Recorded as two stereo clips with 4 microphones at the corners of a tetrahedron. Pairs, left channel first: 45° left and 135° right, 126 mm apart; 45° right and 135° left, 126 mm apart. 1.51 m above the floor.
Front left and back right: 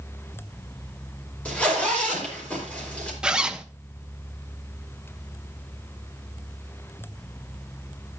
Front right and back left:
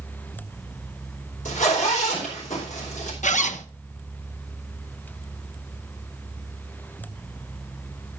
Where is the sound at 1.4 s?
35° right, 4 m.